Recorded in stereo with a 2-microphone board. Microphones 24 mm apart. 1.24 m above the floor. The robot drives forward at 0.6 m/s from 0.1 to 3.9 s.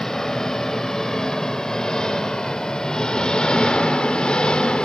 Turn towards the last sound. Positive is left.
turn(degrees=50)  # may be behind; listen again after turning